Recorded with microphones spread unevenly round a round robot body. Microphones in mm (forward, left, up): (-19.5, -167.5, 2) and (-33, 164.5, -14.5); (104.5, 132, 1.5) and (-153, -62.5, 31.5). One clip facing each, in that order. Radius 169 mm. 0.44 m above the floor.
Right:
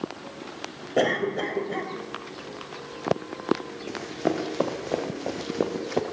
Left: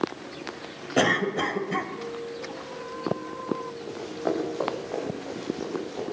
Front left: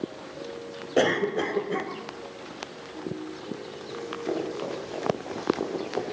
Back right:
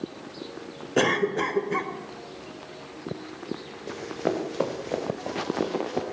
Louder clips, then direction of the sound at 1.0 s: Even, even; 150° left.